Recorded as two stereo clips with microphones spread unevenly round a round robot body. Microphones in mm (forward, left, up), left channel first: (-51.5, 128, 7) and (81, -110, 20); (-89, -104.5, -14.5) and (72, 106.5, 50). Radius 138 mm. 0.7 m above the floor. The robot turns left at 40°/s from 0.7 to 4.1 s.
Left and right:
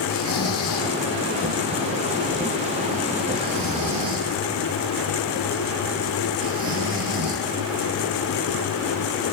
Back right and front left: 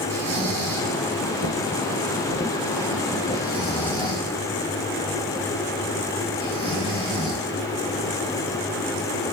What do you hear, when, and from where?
0.1 s snoring: 80° left, 4 m; by 7.4 s 55° right, 4 m